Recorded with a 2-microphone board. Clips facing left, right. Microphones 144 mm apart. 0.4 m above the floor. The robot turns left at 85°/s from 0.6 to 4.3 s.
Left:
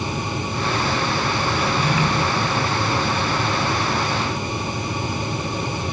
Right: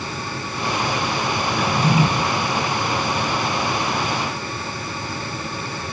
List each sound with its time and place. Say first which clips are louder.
1.6 s a drawer: right 5 dB; 110° right, 1.8 m; by 2.1 s 155° right, 1.8 m